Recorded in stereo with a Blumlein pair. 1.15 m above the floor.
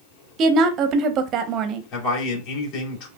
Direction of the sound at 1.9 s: 45° left.